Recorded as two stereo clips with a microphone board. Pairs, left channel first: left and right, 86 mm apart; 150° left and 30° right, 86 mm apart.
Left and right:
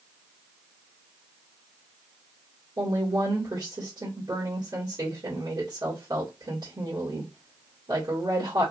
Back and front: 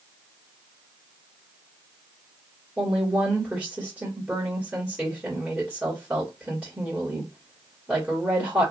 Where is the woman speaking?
100° right, 1.9 m.